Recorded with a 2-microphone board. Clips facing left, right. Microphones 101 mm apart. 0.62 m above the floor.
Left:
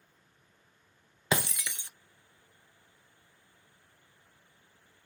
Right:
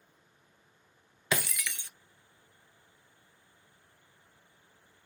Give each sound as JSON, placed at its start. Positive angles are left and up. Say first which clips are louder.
{"t": 1.3, "sound": "breaking glass", "louder": "left 2 dB", "side_deg": 25, "distance_m": 0.7}